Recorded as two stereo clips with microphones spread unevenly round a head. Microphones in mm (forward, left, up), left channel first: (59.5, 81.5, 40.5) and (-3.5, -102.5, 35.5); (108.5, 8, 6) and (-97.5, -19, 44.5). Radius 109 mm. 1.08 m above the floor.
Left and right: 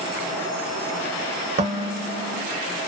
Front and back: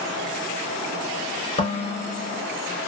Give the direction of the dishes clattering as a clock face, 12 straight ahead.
2 o'clock.